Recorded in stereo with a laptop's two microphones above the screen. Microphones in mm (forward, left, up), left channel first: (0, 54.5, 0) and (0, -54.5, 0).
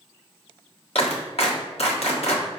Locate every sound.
0.9 s a clap: 70° left (ahead or behind), 1.6 m